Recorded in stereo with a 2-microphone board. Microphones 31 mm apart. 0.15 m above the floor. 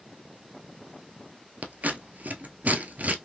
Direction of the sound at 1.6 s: 60° right (ahead or behind).